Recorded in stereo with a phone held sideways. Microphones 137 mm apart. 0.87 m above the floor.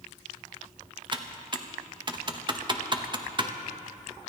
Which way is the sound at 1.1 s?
35° right (ahead or behind).